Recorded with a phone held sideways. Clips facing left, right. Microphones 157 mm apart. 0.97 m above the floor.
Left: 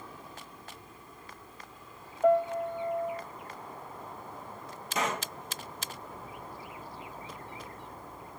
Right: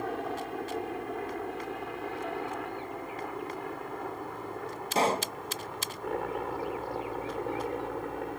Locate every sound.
0.0 s a helicopter: 65° right (ahead or behind); by 8.4 s 70° right (ahead or behind)
2.2 s a piano: 65° left (ahead or behind)
5.0 s a pop: 30° right (ahead or behind)